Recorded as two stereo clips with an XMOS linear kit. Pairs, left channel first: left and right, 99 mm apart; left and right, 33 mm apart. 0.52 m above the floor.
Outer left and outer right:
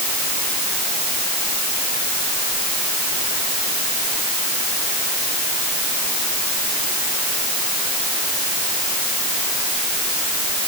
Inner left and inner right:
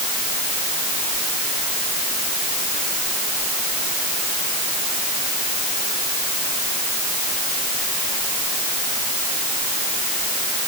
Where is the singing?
No singing in this recording.